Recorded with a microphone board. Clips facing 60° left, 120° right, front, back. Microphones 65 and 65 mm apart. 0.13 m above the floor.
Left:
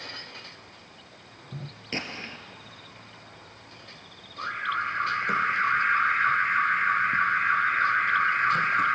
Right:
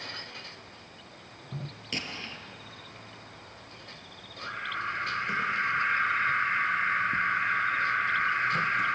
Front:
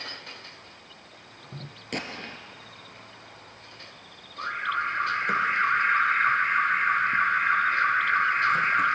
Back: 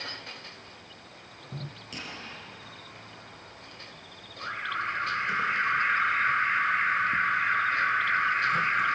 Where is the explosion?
5° left, 1.6 m.